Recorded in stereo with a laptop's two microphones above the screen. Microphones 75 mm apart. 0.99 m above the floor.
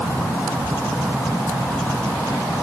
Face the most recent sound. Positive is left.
No sound to turn to.